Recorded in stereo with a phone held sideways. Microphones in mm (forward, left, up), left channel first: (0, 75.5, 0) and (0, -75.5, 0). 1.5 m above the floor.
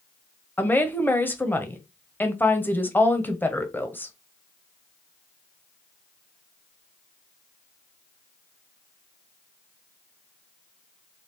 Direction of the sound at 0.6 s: 15° left (ahead or behind).